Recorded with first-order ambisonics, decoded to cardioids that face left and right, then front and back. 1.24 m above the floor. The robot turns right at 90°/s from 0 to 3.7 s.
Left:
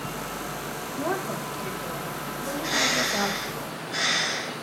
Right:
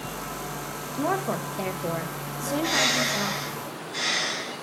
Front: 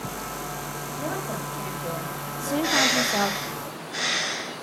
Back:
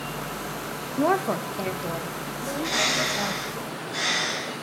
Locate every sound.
1.0 s a woman speaking: straight behind, 0.5 m; by 3.4 s 35° left, 0.5 m
2.4 s a bird: 35° right, 2 m; by 4.5 s 80° left, 2 m